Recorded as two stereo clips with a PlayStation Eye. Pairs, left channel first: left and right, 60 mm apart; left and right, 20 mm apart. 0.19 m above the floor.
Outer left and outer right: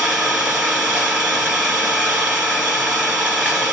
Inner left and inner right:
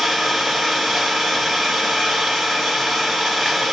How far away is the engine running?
About 1.4 m.